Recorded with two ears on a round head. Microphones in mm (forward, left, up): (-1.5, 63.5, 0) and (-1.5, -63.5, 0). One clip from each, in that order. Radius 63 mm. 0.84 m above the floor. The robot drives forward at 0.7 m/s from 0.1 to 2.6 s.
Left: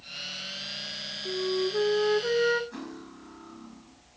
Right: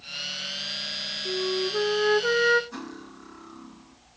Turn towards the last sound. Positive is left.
turn(degrees=-20)  # may be behind; listen again after turning